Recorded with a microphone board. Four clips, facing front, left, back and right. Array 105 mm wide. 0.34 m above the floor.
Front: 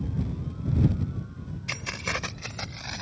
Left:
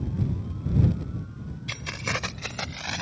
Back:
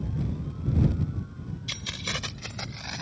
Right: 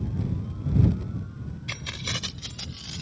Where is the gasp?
No gasp in this recording.